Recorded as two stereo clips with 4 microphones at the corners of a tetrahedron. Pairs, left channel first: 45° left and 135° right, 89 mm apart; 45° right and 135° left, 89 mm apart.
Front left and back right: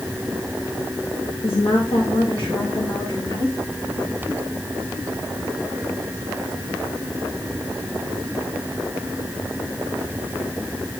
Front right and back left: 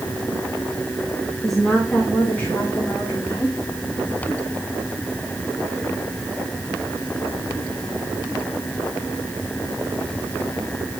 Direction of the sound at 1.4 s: 45° left.